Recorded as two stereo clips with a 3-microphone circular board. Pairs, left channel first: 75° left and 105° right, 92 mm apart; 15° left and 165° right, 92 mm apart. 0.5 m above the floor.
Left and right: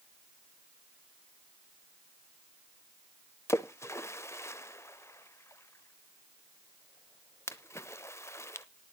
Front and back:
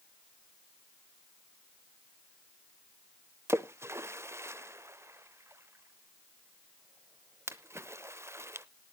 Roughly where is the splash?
Behind left.